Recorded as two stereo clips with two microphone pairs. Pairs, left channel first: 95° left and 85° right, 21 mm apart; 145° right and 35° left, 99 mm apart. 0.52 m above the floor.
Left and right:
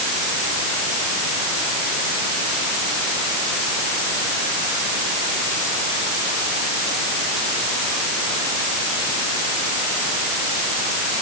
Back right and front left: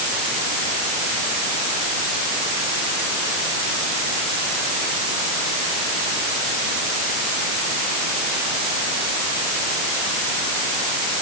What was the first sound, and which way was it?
Only background noise.